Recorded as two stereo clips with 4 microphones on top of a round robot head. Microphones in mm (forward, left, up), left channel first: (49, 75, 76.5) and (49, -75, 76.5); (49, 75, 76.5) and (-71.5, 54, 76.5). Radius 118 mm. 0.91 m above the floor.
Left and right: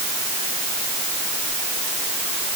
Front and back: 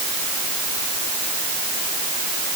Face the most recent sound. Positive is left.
No sound to turn to.